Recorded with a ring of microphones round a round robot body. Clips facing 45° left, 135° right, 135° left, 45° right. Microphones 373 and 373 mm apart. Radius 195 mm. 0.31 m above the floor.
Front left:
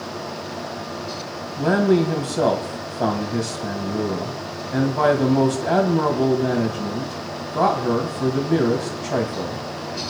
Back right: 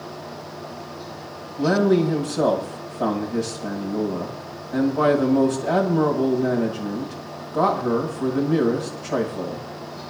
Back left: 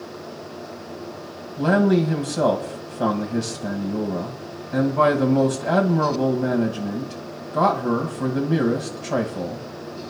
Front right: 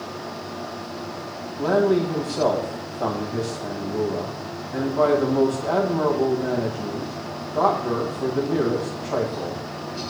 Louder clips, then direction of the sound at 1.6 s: Even, back left 1 dB; 100° left.